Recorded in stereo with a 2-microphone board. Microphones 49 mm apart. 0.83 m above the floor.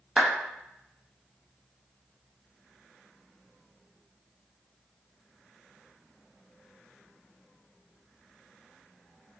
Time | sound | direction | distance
0.2 | a clap | 15° right (ahead or behind) | 0.6 m